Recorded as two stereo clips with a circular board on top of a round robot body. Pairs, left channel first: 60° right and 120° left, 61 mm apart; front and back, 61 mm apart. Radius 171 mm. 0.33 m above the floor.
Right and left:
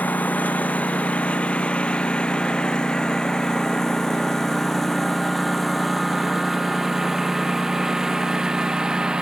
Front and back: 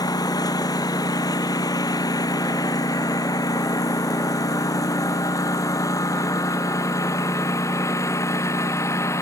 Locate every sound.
0.0 s a lawn mower: 5° left; by 9.2 s 40° left